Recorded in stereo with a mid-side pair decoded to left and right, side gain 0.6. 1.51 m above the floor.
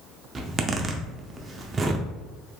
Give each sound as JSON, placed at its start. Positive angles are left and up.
{"t": 0.3, "sound": "a zipper", "azimuth_deg": -25, "distance_m": 0.6}